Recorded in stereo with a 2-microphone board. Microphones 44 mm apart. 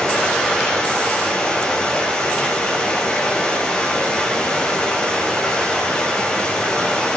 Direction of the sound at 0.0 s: 20° left (ahead or behind).